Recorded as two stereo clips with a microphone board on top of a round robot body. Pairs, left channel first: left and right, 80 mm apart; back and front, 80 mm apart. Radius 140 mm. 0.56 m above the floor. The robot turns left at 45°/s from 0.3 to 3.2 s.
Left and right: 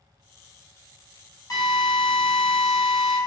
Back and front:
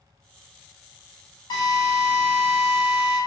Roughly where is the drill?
Behind left.